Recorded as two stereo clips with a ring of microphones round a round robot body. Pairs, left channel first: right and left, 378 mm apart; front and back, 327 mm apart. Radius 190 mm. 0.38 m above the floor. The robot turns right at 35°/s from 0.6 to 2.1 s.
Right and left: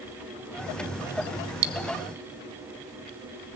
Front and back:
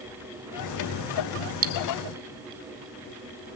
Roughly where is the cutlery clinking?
Behind left.